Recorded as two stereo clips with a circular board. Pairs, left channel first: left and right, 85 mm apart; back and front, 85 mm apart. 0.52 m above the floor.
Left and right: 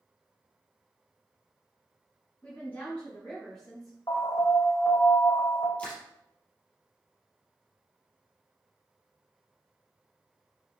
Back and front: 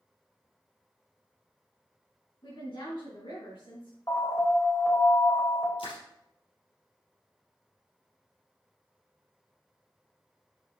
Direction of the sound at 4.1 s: 130° left.